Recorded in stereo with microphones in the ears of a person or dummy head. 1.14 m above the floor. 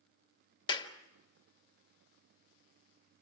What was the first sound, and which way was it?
A clap, 25° left (ahead or behind).